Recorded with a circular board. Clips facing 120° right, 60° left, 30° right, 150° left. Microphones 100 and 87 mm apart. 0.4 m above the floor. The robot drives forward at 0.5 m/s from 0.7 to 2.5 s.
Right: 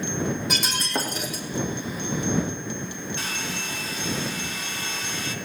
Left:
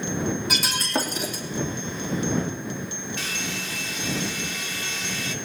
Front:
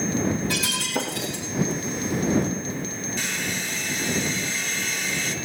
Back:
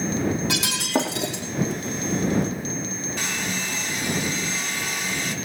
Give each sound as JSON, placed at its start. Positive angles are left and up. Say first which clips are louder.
{"t": 0.5, "sound": "breaking glass", "louder": "left 1 dB, back 3 dB", "azimuth_deg": 150, "distance_m": 3.0}
{"t": 3.2, "sound": "a hair dryer", "louder": "even, back 1 dB", "azimuth_deg": -175, "distance_m": 2.5}